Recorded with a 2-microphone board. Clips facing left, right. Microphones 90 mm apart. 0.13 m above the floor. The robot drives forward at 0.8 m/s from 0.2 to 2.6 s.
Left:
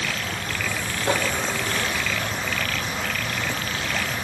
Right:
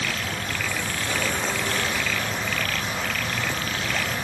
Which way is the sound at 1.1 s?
65° left (ahead or behind).